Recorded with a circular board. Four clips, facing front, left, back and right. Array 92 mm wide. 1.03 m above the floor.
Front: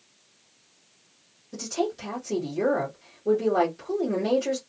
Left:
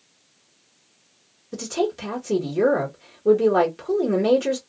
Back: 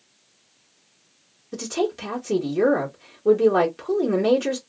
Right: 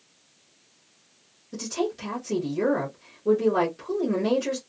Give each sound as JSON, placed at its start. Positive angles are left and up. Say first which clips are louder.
{"t": 1.5, "sound": "a woman speaking", "louder": "left 4 dB, back 3 dB", "azimuth_deg": 145, "distance_m": 1.3}